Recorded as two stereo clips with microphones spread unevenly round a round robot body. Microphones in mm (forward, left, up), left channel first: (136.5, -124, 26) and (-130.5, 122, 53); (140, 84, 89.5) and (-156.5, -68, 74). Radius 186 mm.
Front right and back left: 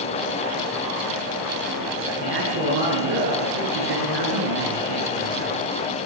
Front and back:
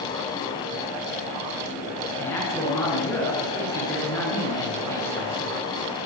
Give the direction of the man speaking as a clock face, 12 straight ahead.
8 o'clock.